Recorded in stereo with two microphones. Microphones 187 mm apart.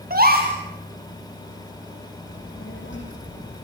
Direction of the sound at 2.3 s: 80° left.